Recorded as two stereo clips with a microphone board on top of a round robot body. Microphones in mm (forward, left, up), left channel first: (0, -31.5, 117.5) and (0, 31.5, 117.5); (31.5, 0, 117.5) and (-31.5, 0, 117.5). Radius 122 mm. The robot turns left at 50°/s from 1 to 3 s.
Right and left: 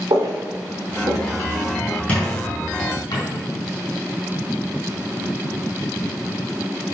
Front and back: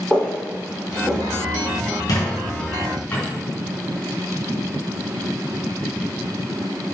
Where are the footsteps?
80° left, 3.5 m; by 2.0 s 20° left, 5 m.